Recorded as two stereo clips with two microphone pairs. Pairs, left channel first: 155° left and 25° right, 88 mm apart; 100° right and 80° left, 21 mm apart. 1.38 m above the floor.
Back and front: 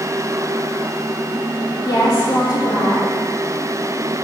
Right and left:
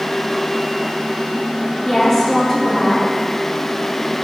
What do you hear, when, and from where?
1.9 s a woman speaking: 160° right, 2.5 m